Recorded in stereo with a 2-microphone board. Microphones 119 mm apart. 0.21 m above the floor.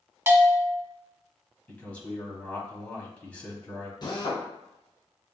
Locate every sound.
0.3 s a bell: 20° right (ahead or behind), 0.8 m
1.7 s a man speaking: 10° left (ahead or behind), 1.0 m
4.0 s a drill: 40° left (ahead or behind), 1.0 m